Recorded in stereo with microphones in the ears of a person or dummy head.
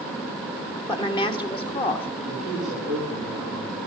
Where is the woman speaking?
30° left (ahead or behind), 1.8 m; by 2.1 s 35° left (ahead or behind), 2.5 m.